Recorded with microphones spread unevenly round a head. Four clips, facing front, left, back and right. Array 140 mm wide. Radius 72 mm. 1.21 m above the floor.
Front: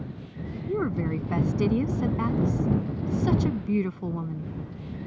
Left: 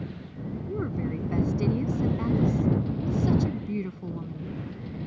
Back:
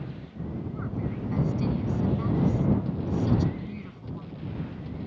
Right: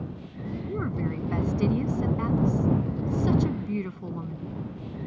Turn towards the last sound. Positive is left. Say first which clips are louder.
# even, front 11 dB
turn(degrees=5)